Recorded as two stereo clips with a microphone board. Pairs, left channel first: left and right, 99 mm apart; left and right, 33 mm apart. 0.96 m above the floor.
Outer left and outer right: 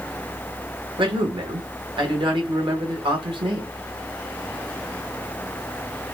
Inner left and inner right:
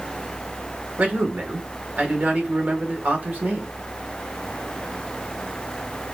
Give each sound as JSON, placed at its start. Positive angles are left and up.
{"t": 1.0, "sound": "a man speaking", "side_deg": -55, "distance_m": 1.4}